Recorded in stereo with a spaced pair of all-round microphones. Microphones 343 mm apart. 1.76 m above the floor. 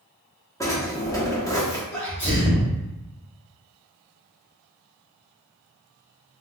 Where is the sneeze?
5° left (ahead or behind), 1.9 m.